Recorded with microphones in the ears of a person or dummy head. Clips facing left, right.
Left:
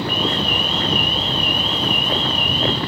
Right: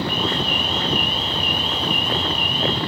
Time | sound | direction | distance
0.1 | an alarm | 55° left (ahead or behind) | 1.7 m